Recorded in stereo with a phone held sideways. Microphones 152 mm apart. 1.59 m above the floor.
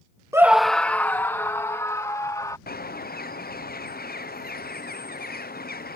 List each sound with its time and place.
0.3 s a scream: 20° right (ahead or behind); by 2.6 s 25° left (ahead or behind)
2.7 s a bird: 80° left